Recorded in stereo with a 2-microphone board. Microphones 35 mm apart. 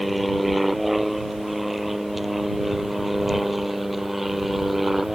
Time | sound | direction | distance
0.0 | an aircraft | centre (ahead or behind) | ?